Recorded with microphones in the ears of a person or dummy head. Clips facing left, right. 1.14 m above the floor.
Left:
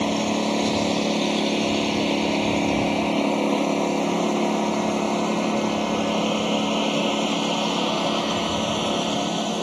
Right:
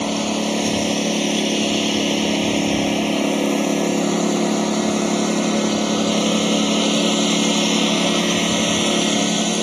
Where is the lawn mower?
Centre (ahead or behind); by 9.6 s 25° right (ahead or behind).